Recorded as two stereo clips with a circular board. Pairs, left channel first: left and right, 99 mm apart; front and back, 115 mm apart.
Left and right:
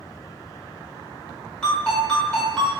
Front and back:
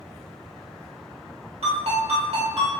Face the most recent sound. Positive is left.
turn(degrees=170)